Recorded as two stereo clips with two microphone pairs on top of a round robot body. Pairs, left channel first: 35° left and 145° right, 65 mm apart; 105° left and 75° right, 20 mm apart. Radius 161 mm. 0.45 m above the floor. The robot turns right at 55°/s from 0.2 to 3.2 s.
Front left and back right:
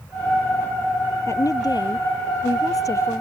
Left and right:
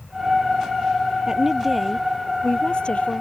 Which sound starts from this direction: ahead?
A woman speaking, at 1.3 s.